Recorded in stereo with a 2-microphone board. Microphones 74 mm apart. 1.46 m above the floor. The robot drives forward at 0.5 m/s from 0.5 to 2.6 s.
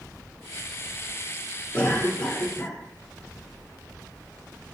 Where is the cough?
20° left (ahead or behind), 1.2 m; by 2.8 s 15° left (ahead or behind), 1.6 m.